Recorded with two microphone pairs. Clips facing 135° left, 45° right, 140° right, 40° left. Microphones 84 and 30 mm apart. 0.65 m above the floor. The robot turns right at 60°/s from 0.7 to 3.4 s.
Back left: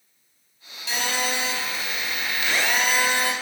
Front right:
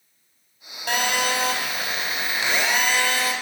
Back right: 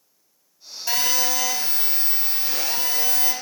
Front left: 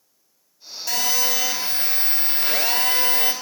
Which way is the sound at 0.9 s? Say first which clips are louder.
Front right 4 dB, even; 75° right.